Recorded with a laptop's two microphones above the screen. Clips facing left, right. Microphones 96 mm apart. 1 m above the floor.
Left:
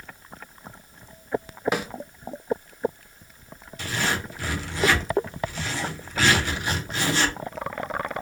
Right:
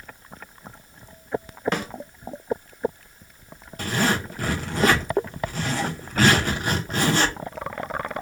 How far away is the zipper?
About 0.7 m.